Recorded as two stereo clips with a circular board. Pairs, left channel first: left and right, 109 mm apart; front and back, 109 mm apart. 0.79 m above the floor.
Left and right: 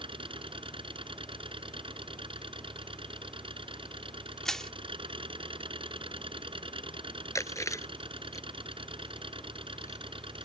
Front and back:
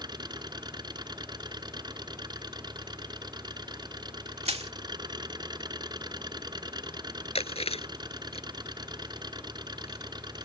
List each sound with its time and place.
0.0 s an engine running: 130° right
4.5 s crushing: 175° left
7.3 s chewing: 25° left